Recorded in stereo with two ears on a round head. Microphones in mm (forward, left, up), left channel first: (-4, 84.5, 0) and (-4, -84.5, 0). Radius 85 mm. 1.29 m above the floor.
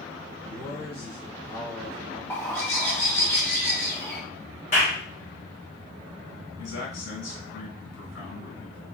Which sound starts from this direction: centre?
A bird, at 2.3 s.